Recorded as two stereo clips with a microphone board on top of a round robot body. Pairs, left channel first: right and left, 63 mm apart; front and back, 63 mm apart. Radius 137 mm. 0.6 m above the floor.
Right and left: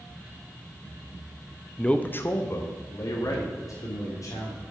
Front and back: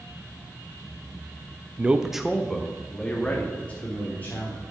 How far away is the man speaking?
About 0.6 m.